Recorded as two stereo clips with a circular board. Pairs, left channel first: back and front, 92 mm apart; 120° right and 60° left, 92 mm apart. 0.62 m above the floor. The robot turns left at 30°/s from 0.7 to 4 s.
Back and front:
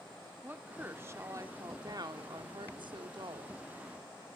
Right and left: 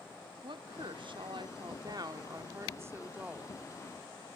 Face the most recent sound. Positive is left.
turn(degrees=-30)